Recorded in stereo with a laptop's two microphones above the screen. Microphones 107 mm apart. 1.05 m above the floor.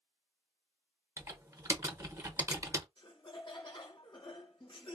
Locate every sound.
1.2 s typing on a keyboard: 25° right (ahead or behind), 0.8 m
3.0 s laughter: 40° left (ahead or behind), 1.0 m